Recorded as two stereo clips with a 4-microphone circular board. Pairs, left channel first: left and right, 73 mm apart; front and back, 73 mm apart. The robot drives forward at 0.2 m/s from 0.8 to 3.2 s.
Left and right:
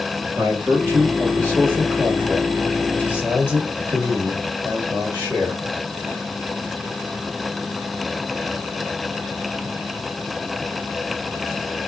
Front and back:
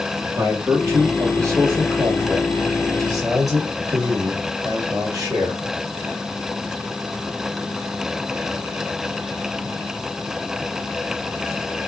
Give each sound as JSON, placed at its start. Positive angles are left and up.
{"t": 0.3, "sound": "a man speaking", "azimuth_deg": -140, "distance_m": 1.6}